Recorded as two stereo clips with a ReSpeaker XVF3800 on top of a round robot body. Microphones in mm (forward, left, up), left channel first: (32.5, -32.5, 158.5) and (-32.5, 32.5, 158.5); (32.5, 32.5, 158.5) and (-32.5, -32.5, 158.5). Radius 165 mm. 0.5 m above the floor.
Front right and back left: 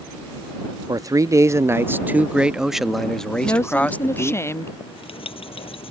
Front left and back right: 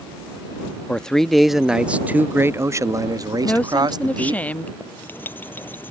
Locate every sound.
0.9 s a man speaking: 120° left; by 4.4 s 110° right
3.4 s a woman speaking: 15° right
4.8 s writing: 25° right